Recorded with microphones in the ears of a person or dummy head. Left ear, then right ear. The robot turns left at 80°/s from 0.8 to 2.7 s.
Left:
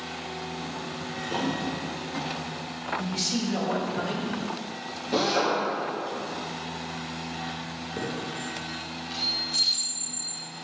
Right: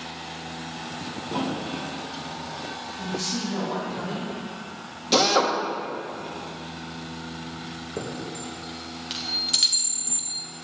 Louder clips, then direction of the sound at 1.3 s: Even; 115° left.